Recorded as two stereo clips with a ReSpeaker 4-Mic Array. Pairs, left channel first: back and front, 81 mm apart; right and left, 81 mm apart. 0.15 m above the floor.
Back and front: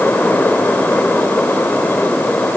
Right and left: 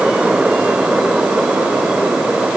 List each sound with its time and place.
Only background noise.